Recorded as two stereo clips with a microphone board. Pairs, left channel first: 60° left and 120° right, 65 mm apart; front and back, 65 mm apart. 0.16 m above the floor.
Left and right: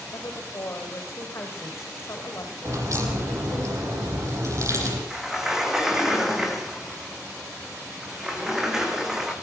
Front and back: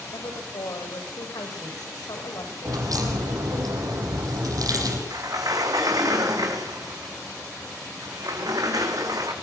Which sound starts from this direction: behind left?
A sliding door, at 5.1 s.